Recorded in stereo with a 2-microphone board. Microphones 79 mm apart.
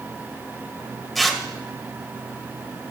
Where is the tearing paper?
5° left (ahead or behind), 1.6 m.